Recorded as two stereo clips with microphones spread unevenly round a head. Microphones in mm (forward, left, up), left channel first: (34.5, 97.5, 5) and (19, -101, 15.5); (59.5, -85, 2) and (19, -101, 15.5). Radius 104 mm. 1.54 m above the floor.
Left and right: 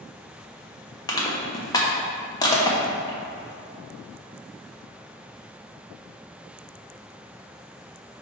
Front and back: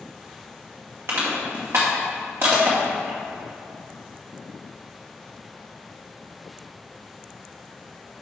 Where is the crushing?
160° left, 1.0 m.